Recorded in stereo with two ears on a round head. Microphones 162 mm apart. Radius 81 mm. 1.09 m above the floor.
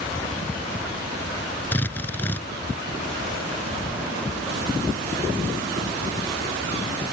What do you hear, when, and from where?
1.7 s a drill: 10° left (ahead or behind)